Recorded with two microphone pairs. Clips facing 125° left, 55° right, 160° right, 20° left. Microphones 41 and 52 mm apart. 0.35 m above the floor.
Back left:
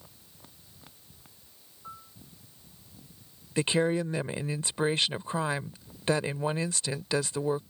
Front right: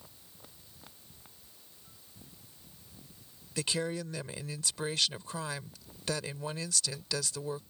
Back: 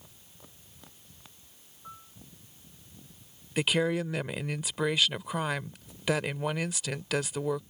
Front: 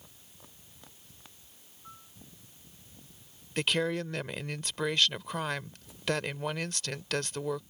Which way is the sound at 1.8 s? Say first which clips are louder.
Back left 15 dB, back 4 dB; 120° left.